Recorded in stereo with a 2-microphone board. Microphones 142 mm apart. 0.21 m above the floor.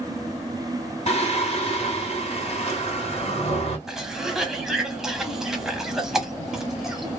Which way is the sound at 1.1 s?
45° left (ahead or behind).